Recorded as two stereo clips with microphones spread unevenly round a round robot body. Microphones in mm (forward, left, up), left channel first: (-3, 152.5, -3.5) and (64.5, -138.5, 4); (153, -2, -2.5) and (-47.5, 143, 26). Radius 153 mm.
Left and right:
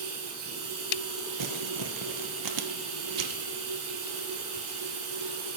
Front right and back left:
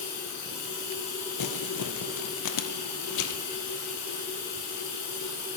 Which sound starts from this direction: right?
Running water, at 0.0 s.